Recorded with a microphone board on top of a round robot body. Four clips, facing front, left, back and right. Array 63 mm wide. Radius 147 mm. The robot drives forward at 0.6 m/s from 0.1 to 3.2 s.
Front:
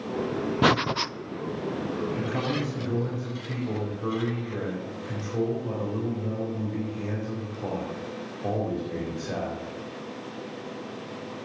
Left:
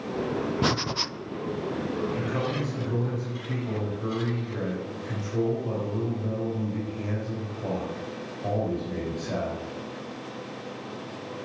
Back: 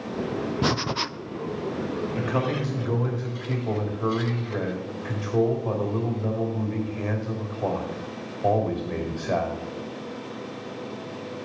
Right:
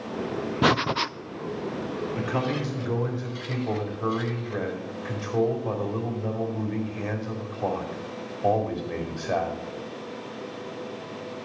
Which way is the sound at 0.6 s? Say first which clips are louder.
Right 5 dB, front 6 dB; 35° right.